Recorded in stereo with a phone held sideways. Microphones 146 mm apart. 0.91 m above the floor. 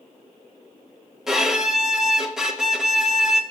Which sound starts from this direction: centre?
A violin, at 1.3 s.